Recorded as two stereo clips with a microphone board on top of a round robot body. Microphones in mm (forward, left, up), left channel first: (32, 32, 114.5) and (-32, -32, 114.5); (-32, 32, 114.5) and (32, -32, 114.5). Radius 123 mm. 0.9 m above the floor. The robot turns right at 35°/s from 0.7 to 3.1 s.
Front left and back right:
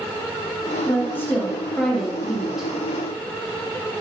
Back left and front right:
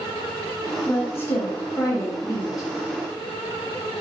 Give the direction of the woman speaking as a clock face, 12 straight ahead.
9 o'clock.